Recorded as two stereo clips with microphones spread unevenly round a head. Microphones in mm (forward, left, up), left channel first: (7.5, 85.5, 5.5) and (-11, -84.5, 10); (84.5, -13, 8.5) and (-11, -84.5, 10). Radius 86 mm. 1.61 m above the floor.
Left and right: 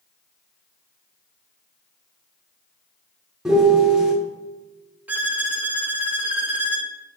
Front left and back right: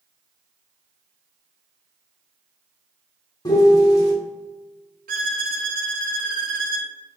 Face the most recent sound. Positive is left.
turn(degrees=-175)